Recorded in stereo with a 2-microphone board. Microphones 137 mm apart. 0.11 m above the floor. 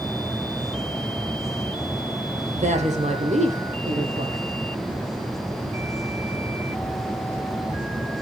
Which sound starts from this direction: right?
A woman speaking, at 2.5 s.